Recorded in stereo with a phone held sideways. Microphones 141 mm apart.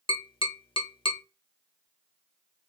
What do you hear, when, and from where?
0.1 s tapping: 40° left (ahead or behind), 0.7 m